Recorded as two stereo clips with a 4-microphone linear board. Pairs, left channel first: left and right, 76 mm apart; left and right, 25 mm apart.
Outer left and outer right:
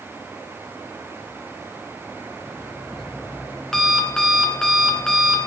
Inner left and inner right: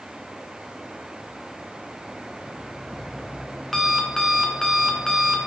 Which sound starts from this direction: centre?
An alarm clock, at 2.5 s.